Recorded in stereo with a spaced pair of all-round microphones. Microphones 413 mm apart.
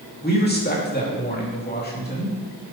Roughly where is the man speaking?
Left.